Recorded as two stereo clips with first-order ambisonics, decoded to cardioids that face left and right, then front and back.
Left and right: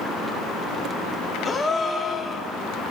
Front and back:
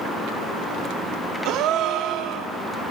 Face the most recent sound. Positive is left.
turn(degrees=165)